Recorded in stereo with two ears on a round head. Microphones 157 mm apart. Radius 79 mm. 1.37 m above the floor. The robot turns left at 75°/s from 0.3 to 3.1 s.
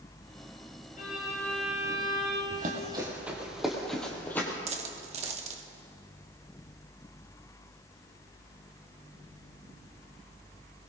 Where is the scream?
No scream in this recording.